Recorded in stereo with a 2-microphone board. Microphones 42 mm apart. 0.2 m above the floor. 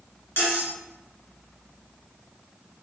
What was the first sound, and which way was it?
Cutlery clinking, 55° left (ahead or behind).